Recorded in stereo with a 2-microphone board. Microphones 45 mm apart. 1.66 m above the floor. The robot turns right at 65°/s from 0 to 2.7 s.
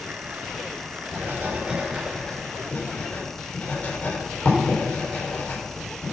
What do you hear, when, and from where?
1.1 s writing: 65° right (ahead or behind), 6.5 m; by 6.1 s 35° left (ahead or behind), 6.5 m